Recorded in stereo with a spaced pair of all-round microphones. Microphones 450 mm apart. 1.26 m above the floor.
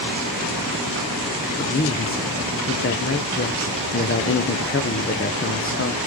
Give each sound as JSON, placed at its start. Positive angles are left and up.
{"t": 1.6, "sound": "a man speaking", "side_deg": 30, "distance_m": 0.6}